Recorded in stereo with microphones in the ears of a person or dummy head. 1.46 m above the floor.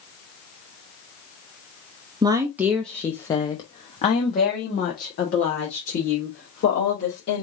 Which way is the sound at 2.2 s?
20° right (ahead or behind).